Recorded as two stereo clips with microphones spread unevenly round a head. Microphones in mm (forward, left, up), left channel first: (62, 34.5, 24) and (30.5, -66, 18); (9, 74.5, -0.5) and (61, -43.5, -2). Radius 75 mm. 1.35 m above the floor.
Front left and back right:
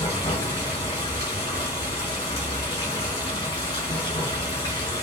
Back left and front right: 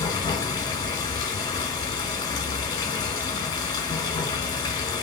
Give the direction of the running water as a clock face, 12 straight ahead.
9 o'clock.